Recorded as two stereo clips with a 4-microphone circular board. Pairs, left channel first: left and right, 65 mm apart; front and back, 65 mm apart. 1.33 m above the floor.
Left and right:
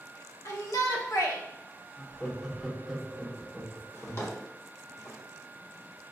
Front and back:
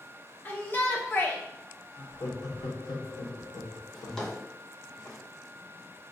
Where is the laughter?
Straight ahead, 0.8 m.